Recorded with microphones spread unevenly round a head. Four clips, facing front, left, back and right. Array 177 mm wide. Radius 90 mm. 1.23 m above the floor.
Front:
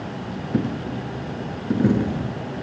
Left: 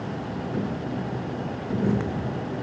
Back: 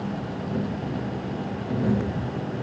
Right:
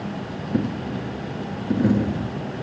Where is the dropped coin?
35° right, 3 m.